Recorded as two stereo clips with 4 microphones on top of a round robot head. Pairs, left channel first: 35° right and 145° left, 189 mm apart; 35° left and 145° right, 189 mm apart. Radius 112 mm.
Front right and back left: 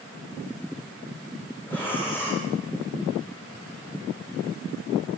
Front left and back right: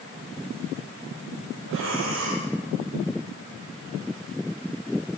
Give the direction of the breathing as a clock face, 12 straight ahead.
4 o'clock.